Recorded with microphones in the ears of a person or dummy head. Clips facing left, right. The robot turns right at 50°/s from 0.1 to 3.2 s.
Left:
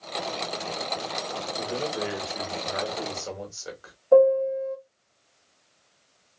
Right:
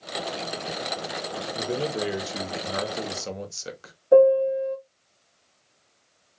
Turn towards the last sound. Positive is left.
turn(degrees=-15)  # may be behind; listen again after turning